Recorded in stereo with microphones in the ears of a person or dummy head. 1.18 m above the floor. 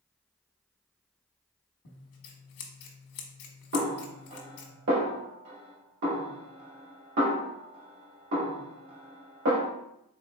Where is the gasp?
No gasp in this recording.